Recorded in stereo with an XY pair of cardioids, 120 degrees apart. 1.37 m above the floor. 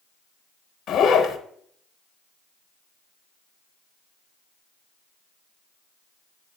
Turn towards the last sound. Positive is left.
turn(degrees=60)